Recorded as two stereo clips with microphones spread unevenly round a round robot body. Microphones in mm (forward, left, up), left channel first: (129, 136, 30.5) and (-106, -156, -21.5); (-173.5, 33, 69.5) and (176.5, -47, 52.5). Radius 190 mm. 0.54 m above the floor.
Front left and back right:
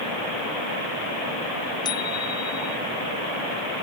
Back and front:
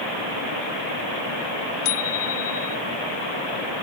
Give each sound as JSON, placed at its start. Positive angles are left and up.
{"t": 1.9, "sound": "a bicycle bell", "azimuth_deg": 130}